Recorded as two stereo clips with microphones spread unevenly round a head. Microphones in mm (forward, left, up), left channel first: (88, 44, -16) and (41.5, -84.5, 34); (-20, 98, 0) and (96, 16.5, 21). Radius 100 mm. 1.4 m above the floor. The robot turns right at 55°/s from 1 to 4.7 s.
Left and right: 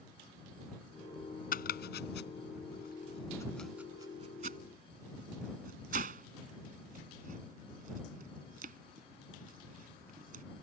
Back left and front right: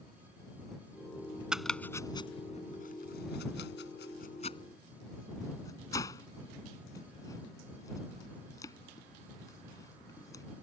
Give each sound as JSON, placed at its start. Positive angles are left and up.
{"t": 1.5, "sound": "chopping", "azimuth_deg": 45}